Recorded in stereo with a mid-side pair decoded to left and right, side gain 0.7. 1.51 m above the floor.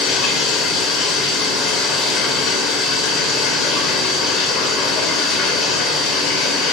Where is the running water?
50° left, 3 m.